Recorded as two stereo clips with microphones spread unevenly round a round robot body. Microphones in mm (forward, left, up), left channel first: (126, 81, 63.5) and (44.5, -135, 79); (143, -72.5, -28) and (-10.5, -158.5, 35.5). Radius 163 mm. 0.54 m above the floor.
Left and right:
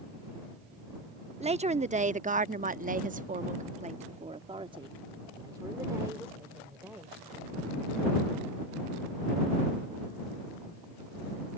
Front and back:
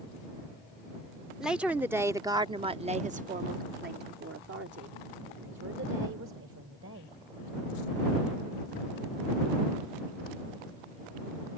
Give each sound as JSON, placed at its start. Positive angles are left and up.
{"t": 1.4, "sound": "a woman speaking", "azimuth_deg": -50}